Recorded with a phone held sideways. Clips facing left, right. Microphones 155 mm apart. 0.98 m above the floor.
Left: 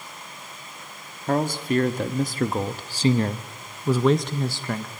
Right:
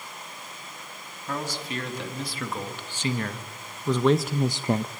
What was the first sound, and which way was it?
A man speaking, 60° left (ahead or behind).